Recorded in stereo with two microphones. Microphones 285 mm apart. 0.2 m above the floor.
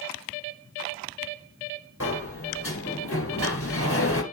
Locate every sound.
2.0 s a sliding door: 50° left (ahead or behind), 1.5 m